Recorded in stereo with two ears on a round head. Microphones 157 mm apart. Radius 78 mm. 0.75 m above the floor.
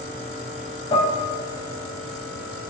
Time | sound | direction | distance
0.9 | dishes clattering | 35° left (ahead or behind) | 2.5 m